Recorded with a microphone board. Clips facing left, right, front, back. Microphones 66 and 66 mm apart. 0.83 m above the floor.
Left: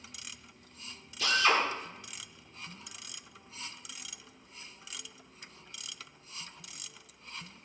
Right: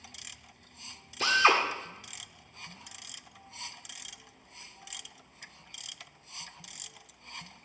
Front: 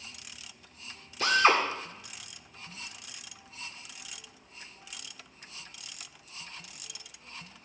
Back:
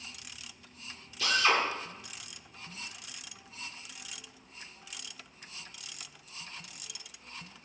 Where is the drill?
45° right, 2 m.